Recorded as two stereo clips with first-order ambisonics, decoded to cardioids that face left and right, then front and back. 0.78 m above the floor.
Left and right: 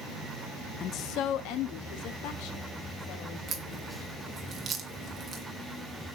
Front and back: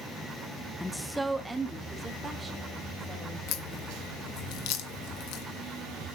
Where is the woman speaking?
80° left, 0.5 m; by 4.3 s 100° left, 4.5 m.